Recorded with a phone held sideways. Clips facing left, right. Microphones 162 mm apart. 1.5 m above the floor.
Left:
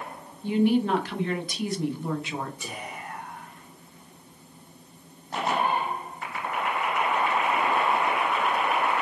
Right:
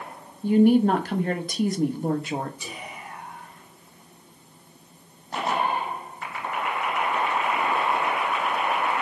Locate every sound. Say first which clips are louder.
0.4 s a woman speaking: right 5 dB; 50° right (ahead or behind), 0.5 m
2.6 s whispering: left 1 dB; 55° left (ahead or behind), 2 m